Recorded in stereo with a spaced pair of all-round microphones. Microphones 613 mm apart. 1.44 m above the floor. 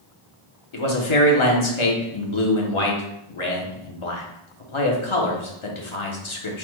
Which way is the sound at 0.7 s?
50° left (ahead or behind).